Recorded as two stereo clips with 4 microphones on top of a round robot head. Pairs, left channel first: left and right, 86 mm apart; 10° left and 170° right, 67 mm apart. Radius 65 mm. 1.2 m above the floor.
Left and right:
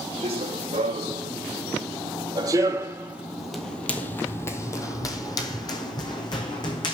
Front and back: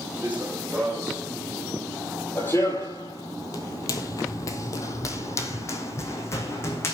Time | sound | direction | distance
0.2 | running footsteps | 95° right | 3 m